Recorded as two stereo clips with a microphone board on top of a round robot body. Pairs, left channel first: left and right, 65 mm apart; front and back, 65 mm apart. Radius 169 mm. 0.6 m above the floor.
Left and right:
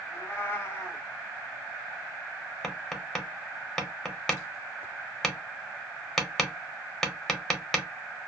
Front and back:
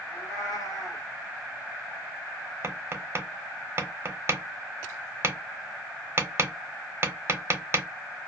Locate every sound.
0.1 s a cat meowing: 35° left, 0.9 m
2.6 s tapping: 165° left, 1.0 m